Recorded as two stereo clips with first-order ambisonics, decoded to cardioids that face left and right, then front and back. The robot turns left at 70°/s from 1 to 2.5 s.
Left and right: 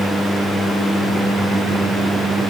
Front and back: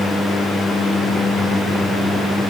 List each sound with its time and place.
Only background noise.